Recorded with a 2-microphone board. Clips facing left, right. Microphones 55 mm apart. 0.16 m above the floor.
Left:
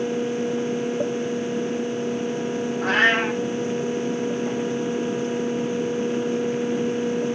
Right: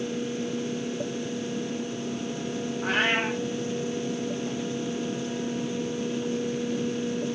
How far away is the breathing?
No breathing in this recording.